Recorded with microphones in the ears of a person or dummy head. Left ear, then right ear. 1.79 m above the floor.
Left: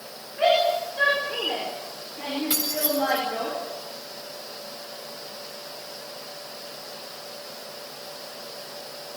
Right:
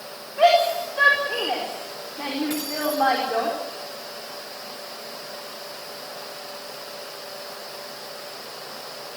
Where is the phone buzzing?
No phone buzzing in this recording.